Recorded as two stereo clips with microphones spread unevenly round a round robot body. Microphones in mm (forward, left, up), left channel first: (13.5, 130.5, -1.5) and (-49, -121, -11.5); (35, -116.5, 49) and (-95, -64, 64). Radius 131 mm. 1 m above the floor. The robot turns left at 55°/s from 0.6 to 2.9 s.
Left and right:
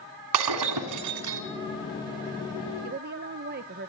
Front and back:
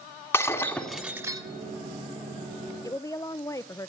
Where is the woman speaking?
70° right, 0.5 m; by 3.9 s 75° right, 0.5 m.